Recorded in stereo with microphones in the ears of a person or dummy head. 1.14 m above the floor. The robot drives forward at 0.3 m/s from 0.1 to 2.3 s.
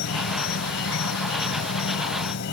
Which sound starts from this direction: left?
An insect, at 0.0 s.